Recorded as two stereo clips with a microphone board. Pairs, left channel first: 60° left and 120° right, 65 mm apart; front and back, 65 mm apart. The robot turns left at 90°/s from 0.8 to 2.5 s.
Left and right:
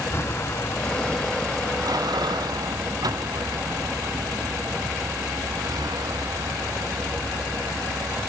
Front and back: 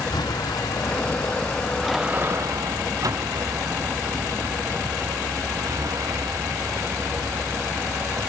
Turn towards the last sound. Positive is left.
turn(degrees=-145)